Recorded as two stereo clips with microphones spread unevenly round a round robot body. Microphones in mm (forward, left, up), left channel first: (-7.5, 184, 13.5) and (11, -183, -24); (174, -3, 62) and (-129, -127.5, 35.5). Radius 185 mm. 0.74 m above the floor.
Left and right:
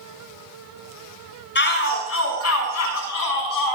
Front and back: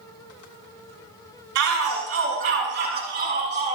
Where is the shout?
155° left, 7 m; by 3.8 s 130° left, 7.5 m.